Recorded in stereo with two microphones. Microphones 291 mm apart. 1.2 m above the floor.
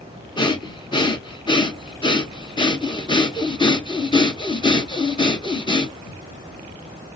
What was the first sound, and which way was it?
Breathing, 15° left (ahead or behind).